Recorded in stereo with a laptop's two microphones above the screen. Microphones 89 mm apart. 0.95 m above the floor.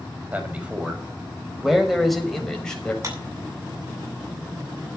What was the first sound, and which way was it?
A man speaking, 20° right (ahead or behind).